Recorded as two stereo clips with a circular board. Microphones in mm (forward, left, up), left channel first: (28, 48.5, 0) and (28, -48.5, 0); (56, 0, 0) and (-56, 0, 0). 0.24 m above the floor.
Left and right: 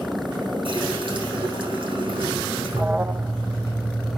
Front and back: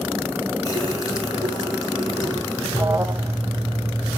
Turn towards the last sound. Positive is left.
turn(degrees=-145)